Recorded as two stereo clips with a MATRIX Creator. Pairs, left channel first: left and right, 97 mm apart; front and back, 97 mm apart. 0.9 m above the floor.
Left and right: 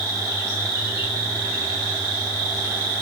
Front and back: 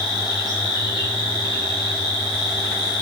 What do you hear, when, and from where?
0.0 s an insect: 30° right, 2.5 m